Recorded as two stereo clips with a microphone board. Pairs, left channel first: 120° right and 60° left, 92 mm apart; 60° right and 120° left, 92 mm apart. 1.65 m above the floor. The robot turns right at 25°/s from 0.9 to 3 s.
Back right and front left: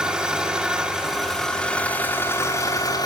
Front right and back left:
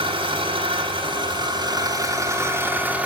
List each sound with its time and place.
0.0 s an engine running: 140° left, 4 m; by 3.1 s 165° right, 4 m